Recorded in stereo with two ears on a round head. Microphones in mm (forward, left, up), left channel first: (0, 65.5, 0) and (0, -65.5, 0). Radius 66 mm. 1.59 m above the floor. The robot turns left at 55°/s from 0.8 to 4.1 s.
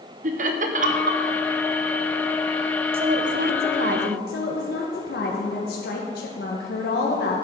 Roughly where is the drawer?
No drawer in this recording.